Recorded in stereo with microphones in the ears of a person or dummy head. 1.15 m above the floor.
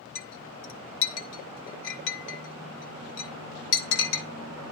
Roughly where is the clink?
Left.